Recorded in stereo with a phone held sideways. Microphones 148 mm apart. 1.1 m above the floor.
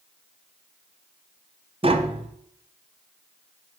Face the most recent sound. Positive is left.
turn(degrees=-40)  # may be behind; listen again after turning